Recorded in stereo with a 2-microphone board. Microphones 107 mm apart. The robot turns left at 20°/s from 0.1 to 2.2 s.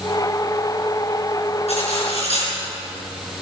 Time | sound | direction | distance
1.7 | cutlery clinking | 85° left | 5.5 m